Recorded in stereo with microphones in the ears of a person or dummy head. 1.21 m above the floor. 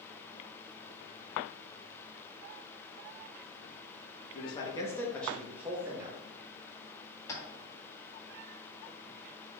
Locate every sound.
4.3 s a man speaking: 35° left (ahead or behind), 1.5 m; by 6.2 s 15° right (ahead or behind), 1.7 m
7.3 s tapping: 20° left (ahead or behind), 2 m